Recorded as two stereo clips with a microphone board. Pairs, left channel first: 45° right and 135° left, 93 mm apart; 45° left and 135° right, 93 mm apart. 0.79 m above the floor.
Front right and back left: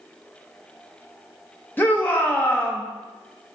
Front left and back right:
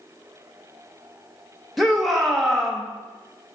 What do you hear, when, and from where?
1.8 s a shout: 45° right, 0.5 m